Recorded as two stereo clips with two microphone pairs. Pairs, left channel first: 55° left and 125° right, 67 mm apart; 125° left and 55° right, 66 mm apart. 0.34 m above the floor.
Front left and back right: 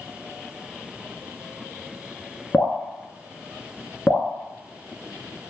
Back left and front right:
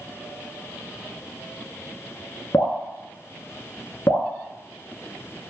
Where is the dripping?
110° left, 0.6 m.